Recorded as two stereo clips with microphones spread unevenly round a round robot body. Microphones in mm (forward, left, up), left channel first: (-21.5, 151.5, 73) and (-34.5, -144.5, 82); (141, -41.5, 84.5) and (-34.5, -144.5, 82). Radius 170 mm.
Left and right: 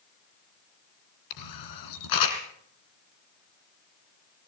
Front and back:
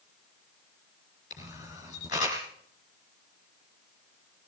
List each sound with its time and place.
1.3 s a camera shutter: 95° left, 3 m